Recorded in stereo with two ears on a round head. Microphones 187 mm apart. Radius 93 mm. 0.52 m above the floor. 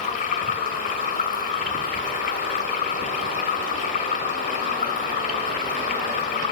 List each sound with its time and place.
0.0 s running water: 40° left (ahead or behind), 1.7 m